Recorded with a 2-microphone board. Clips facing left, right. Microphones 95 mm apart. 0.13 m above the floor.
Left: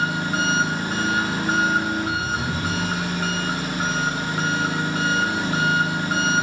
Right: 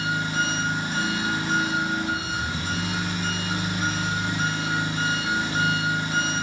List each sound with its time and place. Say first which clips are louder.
0.0 s an engine running: left 3 dB; 70° left (ahead or behind), 4.5 m